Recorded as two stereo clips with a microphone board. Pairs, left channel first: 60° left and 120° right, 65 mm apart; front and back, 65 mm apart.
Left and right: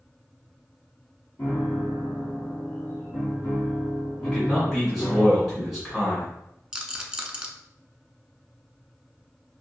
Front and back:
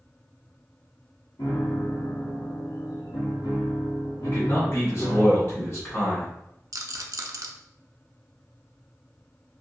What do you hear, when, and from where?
1.4 s a piano: straight ahead, 1.5 m
4.2 s a man speaking: 25° right, 1.8 m
6.7 s a rattle: 165° left, 0.6 m